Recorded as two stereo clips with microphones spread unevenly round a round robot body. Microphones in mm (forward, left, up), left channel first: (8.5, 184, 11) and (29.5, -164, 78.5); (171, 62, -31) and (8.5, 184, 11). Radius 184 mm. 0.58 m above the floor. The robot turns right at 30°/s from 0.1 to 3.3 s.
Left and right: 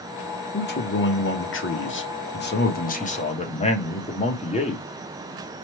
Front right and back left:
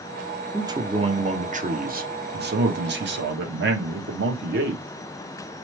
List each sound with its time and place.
0.5 s a man speaking: 60° left, 0.9 m; by 4.8 s 145° left, 0.9 m